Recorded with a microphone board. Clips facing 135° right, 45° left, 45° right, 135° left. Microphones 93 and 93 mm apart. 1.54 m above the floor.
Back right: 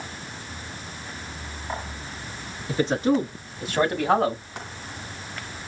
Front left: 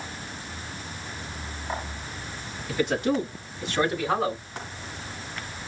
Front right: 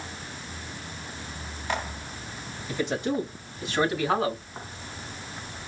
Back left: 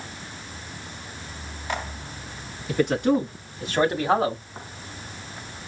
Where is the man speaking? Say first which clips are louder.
Back right 3 dB, back left 7 dB; 170° left, 3.5 m; by 4.4 s 160° right, 1.7 m.